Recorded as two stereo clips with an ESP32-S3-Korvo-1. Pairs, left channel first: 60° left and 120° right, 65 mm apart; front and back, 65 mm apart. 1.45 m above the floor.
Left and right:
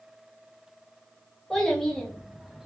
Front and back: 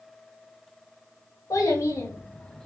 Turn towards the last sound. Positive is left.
turn(degrees=-60)